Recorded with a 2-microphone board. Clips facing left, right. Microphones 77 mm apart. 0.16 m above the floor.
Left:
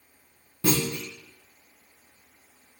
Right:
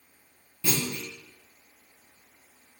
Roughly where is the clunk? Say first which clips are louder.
Left 5 dB; left.